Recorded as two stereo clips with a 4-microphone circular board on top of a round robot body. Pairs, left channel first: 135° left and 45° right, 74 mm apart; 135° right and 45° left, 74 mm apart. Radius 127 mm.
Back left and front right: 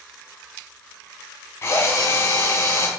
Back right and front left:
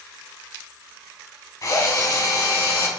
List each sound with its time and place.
1.6 s a drill: 170° right, 2.5 m